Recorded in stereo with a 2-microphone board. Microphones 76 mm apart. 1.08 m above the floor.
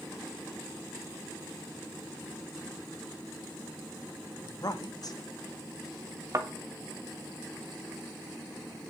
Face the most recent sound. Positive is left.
turn(degrees=-45)  # may be behind; listen again after turning